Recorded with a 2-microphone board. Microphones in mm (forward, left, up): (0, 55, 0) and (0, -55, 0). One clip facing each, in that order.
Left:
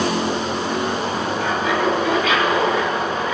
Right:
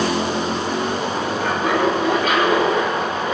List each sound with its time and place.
1.4 s laughter: 55° right (ahead or behind), 4.5 m; by 3.3 s 40° right (ahead or behind), 4.5 m